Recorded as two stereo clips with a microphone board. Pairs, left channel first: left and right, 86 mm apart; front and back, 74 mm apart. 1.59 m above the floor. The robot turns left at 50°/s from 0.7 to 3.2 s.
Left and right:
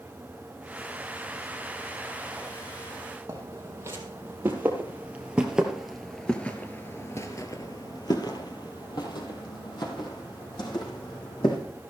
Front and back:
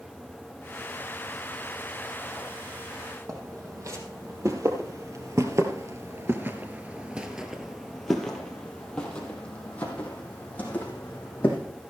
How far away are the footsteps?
About 4 m.